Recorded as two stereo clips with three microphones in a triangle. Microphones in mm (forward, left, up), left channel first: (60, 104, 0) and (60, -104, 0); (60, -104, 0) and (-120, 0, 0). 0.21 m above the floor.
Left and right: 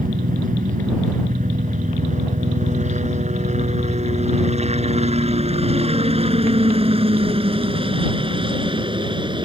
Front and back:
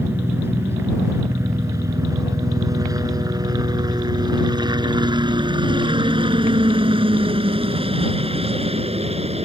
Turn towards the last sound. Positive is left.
turn(degrees=-155)